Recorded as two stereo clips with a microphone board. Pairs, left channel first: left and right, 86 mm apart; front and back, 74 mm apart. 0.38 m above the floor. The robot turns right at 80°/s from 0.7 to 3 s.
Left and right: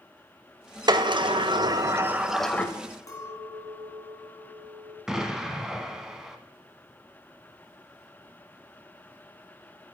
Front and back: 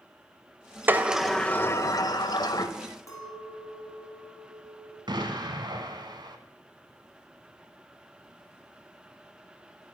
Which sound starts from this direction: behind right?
A sliding door, at 0.9 s.